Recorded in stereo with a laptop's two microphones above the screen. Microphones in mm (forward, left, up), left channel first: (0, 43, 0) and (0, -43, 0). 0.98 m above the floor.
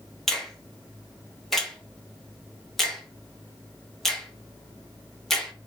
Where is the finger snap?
5° left (ahead or behind), 0.9 m.